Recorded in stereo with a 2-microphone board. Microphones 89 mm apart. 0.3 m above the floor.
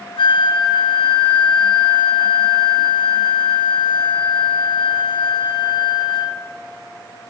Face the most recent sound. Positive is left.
turn(degrees=65)  # may be behind; listen again after turning